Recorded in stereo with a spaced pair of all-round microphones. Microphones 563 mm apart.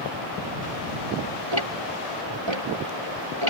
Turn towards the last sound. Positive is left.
turn(degrees=-55)  # may be behind; listen again after turning